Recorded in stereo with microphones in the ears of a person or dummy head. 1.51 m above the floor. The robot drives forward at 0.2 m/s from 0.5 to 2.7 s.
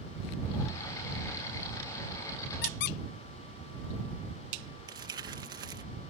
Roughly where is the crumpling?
Right.